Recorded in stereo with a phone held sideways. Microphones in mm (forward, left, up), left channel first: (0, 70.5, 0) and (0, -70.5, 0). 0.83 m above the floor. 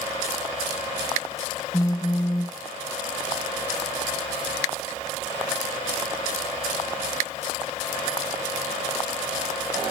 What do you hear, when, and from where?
1.7 s a phone buzzing: 25° left (ahead or behind), 0.8 m